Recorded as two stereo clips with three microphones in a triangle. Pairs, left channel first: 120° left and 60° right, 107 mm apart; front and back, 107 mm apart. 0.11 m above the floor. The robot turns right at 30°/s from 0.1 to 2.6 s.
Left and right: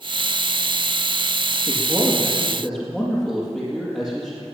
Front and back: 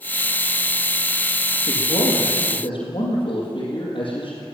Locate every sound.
1.7 s a man speaking: 10° left, 4 m; by 4.4 s 40° left, 4 m